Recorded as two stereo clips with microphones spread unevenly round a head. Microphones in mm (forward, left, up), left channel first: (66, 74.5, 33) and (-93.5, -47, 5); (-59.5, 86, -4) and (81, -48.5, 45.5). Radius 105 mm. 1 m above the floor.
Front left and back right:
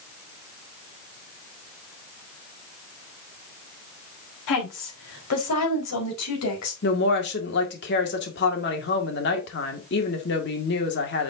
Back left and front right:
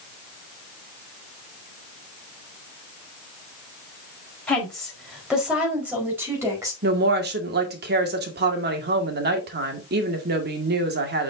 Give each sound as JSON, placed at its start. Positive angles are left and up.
{"t": 4.5, "sound": "a woman speaking", "azimuth_deg": 50, "distance_m": 4.5}
{"t": 6.8, "sound": "a woman speaking", "azimuth_deg": -5, "distance_m": 2.0}